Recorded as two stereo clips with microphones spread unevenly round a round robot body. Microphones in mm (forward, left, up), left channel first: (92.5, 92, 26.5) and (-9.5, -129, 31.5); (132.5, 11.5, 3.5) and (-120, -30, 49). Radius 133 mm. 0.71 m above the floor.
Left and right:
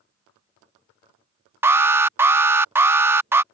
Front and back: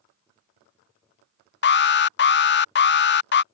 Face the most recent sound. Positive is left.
turn(degrees=-35)